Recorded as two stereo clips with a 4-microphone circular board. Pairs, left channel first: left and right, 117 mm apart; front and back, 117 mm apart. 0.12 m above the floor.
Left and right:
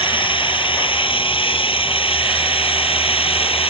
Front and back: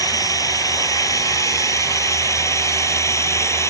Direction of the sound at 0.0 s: 55° left.